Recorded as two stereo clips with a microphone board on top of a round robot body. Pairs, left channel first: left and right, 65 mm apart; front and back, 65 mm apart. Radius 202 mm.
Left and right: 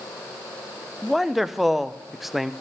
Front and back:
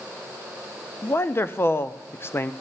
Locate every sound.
1.0 s a man speaking: 5° right, 0.8 m